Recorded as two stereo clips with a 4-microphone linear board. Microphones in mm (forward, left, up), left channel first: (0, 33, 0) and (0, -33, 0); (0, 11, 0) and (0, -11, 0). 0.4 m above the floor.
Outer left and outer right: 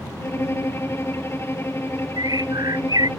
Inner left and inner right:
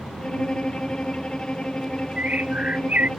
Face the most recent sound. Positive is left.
turn(degrees=-65)  # may be behind; listen again after turning